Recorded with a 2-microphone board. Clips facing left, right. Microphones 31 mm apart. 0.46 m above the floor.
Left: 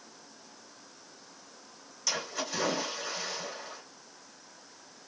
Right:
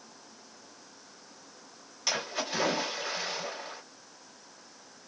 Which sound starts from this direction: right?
A splash, at 2.1 s.